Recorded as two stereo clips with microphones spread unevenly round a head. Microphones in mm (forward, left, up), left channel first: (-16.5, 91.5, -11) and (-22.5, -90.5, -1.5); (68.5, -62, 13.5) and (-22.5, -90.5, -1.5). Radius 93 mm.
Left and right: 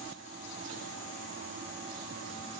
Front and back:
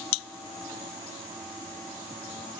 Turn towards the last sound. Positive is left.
No sound to turn to.